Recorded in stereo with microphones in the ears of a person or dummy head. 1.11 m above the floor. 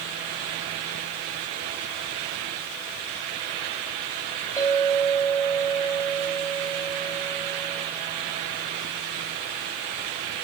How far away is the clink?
About 5.5 m.